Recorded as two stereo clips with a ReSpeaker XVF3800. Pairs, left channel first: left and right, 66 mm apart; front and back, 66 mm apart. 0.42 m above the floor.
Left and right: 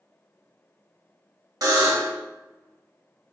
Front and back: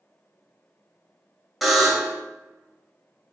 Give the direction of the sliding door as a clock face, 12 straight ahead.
No sliding door in this recording.